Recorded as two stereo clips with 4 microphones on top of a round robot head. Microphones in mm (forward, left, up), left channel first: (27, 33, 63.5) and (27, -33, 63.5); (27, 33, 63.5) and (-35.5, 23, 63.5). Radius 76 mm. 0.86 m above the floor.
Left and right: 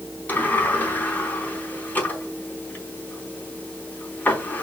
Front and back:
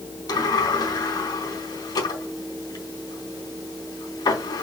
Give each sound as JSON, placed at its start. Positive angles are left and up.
{"t": 0.3, "sound": "a sliding door", "azimuth_deg": 25, "distance_m": 4.0}